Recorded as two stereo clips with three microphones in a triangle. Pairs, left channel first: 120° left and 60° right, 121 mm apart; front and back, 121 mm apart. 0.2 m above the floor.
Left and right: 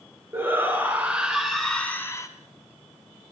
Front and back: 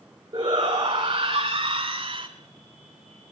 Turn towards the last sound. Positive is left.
turn(degrees=165)